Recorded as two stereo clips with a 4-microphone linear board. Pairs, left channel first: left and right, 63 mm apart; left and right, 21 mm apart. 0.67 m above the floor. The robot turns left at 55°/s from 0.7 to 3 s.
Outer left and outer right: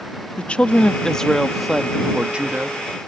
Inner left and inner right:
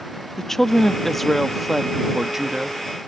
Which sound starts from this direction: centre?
A woman speaking, at 0.4 s.